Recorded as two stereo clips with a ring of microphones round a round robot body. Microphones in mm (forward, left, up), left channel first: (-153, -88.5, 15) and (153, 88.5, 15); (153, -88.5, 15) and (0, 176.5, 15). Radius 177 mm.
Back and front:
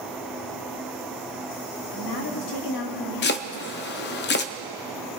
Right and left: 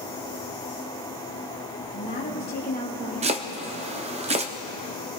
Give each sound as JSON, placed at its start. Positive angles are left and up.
{"t": 1.8, "sound": "a woman speaking", "azimuth_deg": -120, "distance_m": 2.0}
{"t": 3.2, "sound": "chopping", "azimuth_deg": 175, "distance_m": 0.5}